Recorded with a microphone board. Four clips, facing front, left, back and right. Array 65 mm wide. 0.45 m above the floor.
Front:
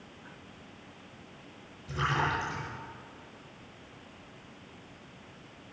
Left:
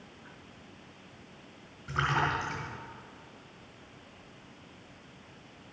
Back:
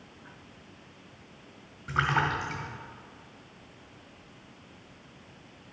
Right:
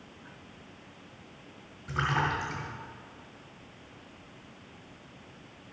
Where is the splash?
170° left, 3 m.